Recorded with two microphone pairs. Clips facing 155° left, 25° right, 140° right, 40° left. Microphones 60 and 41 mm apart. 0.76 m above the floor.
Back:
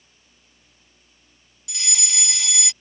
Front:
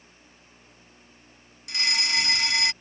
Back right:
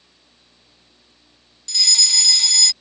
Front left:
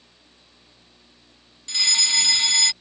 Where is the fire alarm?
15° right.